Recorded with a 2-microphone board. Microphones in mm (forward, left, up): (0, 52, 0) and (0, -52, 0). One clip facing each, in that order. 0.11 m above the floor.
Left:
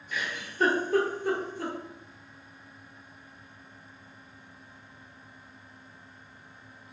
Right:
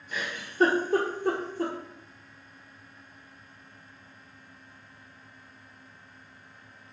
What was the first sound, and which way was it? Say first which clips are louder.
A giggle: right 1 dB; 35° right (ahead or behind).